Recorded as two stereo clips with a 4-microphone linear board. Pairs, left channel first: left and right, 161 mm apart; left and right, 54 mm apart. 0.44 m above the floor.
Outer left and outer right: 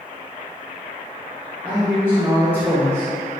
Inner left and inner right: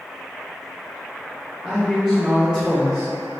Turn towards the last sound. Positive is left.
turn(degrees=-15)  # may be behind; listen again after turning